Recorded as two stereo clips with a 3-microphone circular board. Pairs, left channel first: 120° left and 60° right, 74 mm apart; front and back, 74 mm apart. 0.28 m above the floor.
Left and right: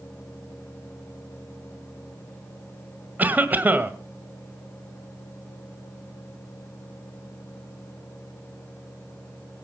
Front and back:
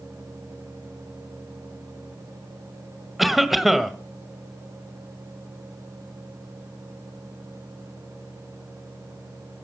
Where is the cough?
95° right, 1.7 m.